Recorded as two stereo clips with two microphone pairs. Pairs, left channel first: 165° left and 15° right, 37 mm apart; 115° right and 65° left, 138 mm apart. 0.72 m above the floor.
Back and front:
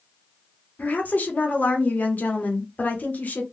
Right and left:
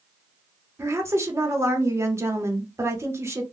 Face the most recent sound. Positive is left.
turn(degrees=135)